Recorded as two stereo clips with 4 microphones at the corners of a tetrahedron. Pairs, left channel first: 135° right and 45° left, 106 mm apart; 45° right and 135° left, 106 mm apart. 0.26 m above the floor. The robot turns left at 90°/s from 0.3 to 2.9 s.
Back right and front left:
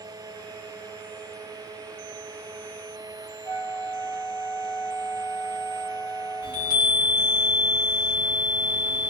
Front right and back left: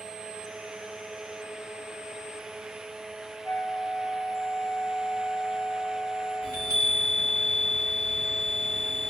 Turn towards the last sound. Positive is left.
turn(degrees=-100)